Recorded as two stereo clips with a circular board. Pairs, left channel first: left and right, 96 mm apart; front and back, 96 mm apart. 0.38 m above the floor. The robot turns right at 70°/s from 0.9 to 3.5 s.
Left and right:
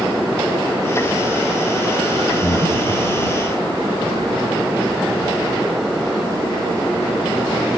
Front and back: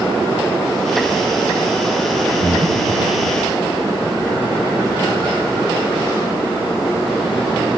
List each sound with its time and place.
2.4 s breathing: 85° left; by 3.1 s 130° left